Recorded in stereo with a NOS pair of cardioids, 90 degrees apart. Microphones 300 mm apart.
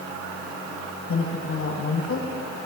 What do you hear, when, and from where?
1.1 s a woman speaking: 45° left, 6.5 m